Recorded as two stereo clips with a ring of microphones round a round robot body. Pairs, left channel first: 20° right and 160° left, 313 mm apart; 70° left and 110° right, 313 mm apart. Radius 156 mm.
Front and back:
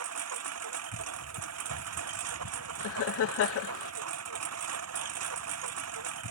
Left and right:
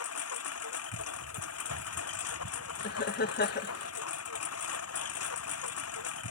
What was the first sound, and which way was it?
A lawn mower, 115° left.